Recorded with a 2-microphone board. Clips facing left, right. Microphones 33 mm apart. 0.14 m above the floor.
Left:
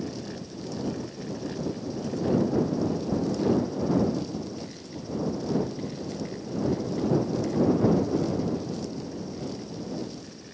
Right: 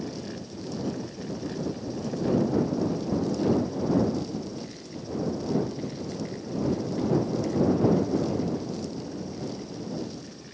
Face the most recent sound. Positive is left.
No sound to turn to.